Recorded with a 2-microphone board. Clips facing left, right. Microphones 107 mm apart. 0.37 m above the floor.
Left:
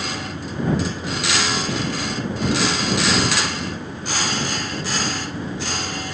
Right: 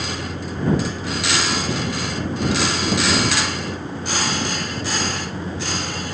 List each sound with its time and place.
0.0 s a vehicle: 35° right (ahead or behind); by 6.1 s 30° right (ahead or behind)